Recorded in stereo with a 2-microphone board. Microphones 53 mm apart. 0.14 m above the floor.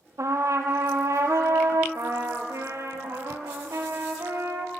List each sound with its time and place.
0.2 s a trumpet: 70° right (ahead or behind), 1.0 m
1.9 s a trumpet: 70° right (ahead or behind), 1.3 m